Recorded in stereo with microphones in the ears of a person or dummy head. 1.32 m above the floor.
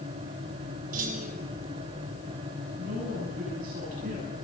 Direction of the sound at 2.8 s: 50° right (ahead or behind).